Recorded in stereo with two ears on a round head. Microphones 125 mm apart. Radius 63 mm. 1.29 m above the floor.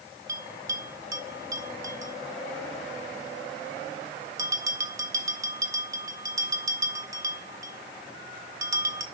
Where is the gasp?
No gasp in this recording.